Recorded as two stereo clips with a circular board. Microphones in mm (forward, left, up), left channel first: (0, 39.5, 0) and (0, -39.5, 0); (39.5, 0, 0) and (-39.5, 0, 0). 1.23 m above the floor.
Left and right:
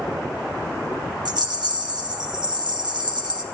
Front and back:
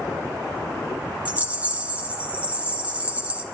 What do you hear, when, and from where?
1.2 s a rattle: 110° right, 1.3 m